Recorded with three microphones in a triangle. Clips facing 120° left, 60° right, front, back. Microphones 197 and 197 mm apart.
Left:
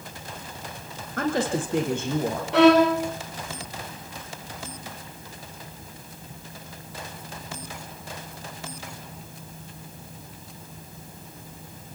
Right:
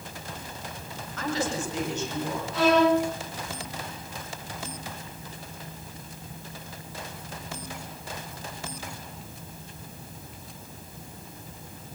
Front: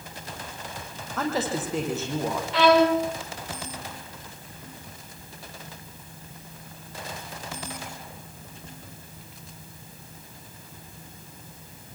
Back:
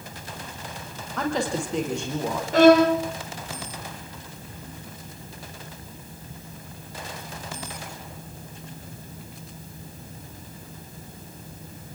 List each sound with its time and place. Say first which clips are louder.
1.2 s a woman speaking: left 5 dB, back 1 dB; 85° left, 8.5 m
2.5 s a violin: left 5 dB, back 5 dB; 135° left, 5.5 m